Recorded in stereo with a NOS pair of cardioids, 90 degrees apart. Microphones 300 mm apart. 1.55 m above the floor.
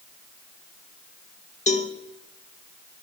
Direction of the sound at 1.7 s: 25° left.